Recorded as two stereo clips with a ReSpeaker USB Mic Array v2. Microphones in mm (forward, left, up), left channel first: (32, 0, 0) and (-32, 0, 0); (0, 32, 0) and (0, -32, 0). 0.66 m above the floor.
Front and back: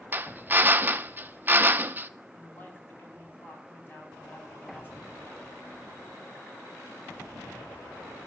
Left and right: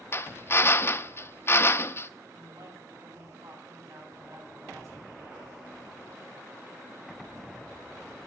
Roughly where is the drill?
Behind left.